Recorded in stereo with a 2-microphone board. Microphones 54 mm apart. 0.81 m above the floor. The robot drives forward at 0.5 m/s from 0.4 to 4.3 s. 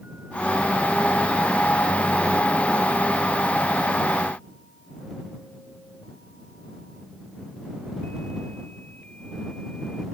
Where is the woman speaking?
I don't hear a woman speaking.